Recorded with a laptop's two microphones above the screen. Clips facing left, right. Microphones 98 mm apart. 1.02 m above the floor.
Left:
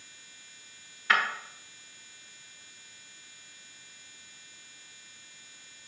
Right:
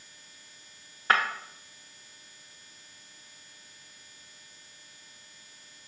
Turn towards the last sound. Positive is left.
turn(degrees=-35)  # may be behind; listen again after turning